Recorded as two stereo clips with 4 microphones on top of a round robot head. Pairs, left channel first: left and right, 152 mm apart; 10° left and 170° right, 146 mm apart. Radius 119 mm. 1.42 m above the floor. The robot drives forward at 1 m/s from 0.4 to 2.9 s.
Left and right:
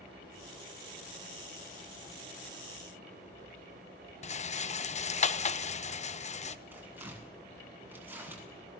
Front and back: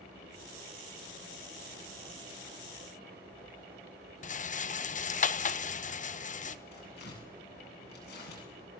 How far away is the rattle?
About 1.1 m.